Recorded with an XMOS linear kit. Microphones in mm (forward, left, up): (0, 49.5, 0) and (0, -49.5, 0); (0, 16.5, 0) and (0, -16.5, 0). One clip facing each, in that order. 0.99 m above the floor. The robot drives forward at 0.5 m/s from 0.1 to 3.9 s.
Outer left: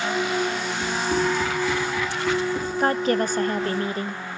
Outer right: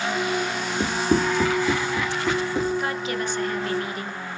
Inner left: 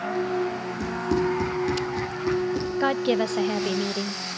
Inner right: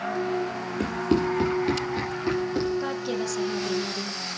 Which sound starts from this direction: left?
A woman speaking, at 2.8 s.